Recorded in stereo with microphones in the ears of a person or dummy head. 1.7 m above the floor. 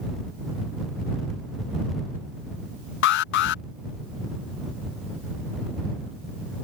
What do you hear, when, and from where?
3.0 s an alarm: 65° left (ahead or behind)